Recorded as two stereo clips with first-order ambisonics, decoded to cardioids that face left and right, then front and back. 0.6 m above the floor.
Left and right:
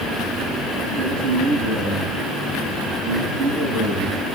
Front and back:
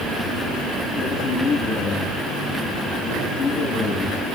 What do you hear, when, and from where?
1.0 s a man speaking: 55° right, 7.5 m